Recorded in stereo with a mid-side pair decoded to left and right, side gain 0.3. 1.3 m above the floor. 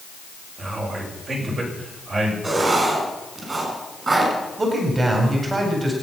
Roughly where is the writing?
Ahead right.